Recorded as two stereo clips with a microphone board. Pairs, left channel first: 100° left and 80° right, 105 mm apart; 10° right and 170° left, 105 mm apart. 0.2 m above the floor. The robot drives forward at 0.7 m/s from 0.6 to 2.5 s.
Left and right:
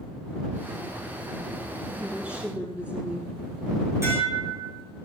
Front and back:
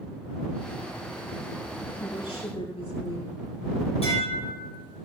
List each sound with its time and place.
2.0 s a woman speaking: straight ahead, 6.5 m
4.0 s dishes clattering: 15° right, 6.5 m